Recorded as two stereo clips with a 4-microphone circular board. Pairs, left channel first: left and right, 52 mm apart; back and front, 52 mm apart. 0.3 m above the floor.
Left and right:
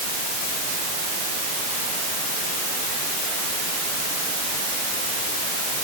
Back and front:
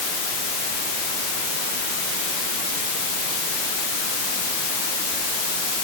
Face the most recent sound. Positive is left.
No sound to turn to.